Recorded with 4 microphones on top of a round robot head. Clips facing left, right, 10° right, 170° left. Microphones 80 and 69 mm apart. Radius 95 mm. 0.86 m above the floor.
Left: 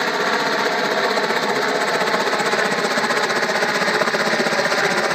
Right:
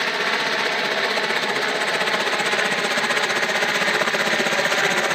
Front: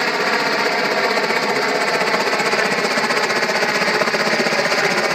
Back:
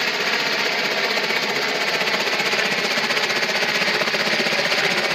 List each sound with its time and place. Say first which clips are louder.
0.0 s a helicopter: left 4 dB, front 5 dB; 35° left; by 5.2 s 30° left